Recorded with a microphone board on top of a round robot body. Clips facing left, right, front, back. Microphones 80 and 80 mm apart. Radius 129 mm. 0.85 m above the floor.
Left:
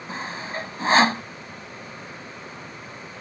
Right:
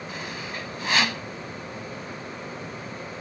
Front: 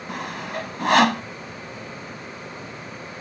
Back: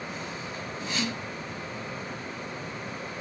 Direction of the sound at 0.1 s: 35° left.